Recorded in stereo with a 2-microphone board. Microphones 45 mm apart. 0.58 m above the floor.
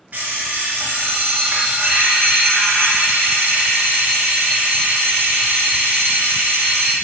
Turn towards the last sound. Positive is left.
turn(degrees=-40)  # may be behind; listen again after turning